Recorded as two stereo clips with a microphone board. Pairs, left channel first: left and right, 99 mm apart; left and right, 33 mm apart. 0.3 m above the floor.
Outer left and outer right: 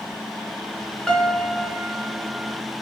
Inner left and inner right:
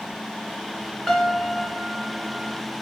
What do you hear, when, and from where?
1.1 s a piano: 5° left (ahead or behind), 2.5 m